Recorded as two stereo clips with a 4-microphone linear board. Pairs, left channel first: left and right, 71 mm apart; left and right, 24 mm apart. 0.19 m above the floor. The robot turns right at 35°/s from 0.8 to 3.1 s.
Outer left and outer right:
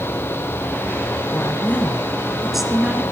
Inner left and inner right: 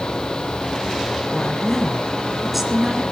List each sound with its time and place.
1.3 s a woman speaking: 140° left, 2.5 m; by 3.0 s 160° right, 2.5 m